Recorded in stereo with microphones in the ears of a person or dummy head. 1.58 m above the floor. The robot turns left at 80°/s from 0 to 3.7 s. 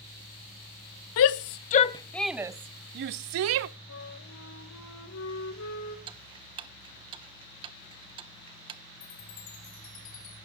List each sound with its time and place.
1.2 s a shout: 70° left (ahead or behind), 0.6 m; by 3.7 s 60° right (ahead or behind), 0.6 m
3.9 s a flute: 80° left, 1.8 m
6.1 s ticking: 25° right (ahead or behind), 0.7 m
9.0 s a chime: 45° left (ahead or behind), 3.5 m